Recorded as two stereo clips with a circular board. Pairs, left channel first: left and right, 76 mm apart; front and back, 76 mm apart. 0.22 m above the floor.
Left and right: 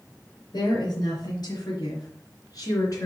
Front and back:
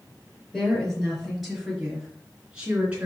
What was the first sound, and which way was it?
A woman speaking, 85° left.